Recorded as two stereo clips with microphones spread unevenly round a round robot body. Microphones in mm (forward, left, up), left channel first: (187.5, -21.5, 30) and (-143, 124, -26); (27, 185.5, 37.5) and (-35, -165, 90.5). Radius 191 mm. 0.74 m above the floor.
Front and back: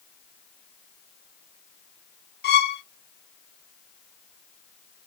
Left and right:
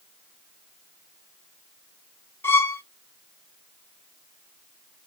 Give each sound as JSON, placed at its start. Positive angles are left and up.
{"t": 2.4, "sound": "a violin", "azimuth_deg": 25, "distance_m": 0.6}